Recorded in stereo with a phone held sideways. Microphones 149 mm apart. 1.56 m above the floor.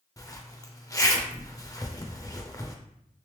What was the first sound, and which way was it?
A zipper, 20° left (ahead or behind).